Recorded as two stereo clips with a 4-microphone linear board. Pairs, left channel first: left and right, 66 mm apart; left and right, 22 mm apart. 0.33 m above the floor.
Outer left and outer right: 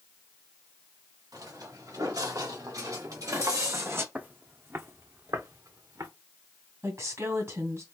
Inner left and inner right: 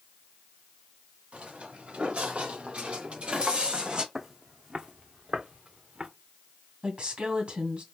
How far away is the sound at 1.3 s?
About 3 m.